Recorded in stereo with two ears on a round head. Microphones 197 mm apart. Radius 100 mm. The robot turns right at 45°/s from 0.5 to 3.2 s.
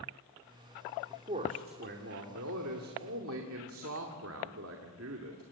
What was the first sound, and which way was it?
A man speaking, 160° right.